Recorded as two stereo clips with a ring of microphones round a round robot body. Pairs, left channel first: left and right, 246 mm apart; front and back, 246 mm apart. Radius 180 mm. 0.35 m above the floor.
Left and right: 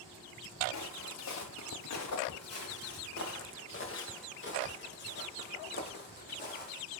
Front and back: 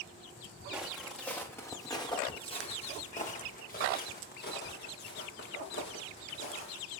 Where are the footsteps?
95° left, 2.5 m; by 6.8 s 35° left, 5.5 m.